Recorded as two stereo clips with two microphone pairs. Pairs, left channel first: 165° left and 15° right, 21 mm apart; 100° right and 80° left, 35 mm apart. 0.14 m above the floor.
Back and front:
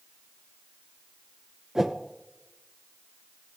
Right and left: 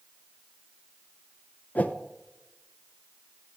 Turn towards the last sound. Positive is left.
turn(degrees=-80)